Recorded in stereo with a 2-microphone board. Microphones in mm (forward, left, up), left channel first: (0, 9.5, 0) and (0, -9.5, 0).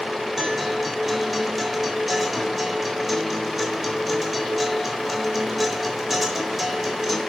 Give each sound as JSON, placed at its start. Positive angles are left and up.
{"t": 0.4, "sound": "a guitar", "side_deg": -10, "distance_m": 4.0}